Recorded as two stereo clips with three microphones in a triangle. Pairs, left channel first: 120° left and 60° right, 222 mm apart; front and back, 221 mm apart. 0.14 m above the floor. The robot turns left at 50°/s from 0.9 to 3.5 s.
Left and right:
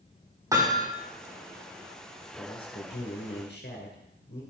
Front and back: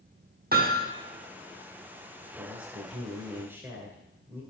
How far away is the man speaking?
About 2.5 m.